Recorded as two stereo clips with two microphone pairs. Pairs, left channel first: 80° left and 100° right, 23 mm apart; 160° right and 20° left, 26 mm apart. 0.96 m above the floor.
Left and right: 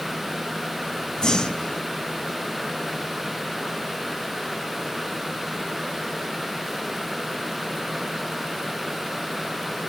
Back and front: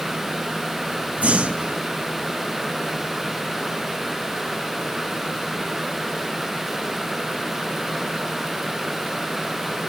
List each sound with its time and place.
1.2 s breathing: 30° left, 1.1 m